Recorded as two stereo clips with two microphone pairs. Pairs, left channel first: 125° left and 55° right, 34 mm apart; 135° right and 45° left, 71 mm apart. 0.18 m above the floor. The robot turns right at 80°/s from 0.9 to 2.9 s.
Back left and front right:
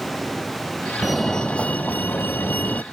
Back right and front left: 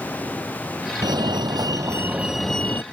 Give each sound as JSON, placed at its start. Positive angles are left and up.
{"t": 1.0, "sound": "a fire alarm", "azimuth_deg": 20}